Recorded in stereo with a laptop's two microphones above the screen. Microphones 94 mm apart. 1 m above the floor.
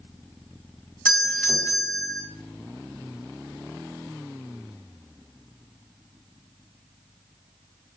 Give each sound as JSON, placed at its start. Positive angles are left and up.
{"t": 1.1, "sound": "a doorbell", "side_deg": 10, "distance_m": 1.7}